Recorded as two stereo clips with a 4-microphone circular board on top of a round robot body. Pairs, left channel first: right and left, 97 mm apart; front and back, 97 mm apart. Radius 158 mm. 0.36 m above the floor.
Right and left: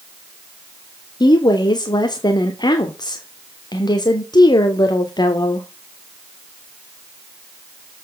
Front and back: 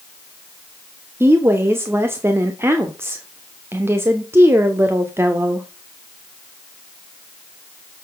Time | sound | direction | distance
1.2 | a woman speaking | 120° right | 1.3 m